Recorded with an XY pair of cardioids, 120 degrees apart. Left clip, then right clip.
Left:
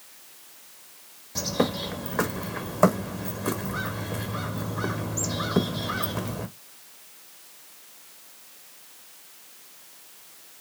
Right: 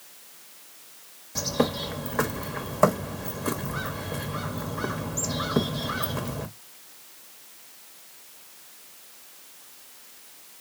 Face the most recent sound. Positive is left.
turn(degrees=5)